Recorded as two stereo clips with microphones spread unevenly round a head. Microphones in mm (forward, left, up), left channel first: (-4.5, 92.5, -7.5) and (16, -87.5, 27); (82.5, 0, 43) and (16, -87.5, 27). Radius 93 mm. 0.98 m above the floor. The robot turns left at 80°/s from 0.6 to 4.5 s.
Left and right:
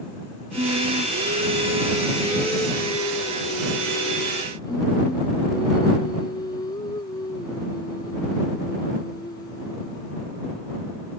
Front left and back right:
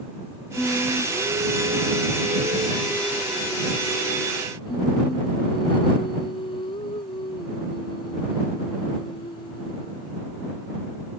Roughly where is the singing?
Ahead right.